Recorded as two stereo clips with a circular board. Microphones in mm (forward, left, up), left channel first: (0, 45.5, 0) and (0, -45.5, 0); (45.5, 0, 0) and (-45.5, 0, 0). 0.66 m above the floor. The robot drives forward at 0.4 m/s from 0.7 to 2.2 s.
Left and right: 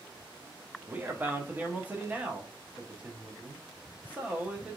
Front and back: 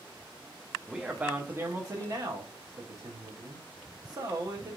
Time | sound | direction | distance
0.9 | a man speaking | 105° right | 0.7 m